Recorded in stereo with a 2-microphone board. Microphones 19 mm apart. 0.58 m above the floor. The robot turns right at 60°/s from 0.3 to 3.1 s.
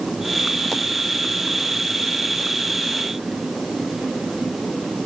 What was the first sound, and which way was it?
Only background noise.